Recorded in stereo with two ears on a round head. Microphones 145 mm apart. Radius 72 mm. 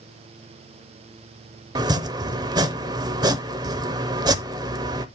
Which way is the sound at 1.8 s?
25° right (ahead or behind).